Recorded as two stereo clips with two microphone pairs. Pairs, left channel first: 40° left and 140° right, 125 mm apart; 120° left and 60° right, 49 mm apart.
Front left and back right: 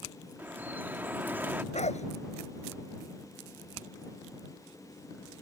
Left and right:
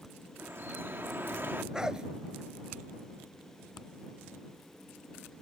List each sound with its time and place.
0.4 s dripping: 75° right
1.7 s a dog barking: 15° left